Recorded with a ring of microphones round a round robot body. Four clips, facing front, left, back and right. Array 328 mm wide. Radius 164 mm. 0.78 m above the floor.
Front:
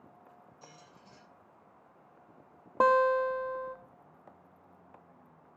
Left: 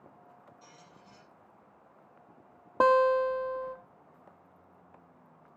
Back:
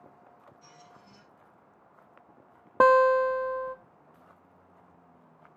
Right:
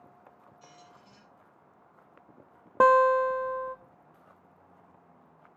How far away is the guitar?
About 0.8 m.